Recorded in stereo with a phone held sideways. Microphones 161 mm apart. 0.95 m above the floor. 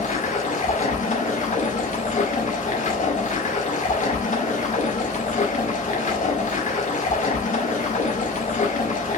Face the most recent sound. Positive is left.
turn(degrees=55)  # may be behind; listen again after turning